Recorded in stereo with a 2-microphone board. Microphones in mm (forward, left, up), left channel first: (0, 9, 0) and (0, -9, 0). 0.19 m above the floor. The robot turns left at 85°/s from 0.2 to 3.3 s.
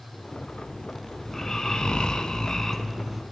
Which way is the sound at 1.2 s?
160° left.